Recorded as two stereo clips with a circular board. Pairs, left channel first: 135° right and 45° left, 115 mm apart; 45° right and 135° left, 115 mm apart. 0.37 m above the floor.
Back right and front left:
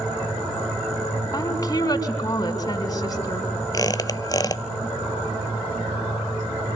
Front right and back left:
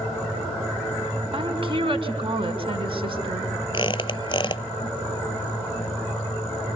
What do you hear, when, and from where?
1.3 s a woman speaking: 170° left, 4 m
3.7 s a squeak: 85° right, 0.6 m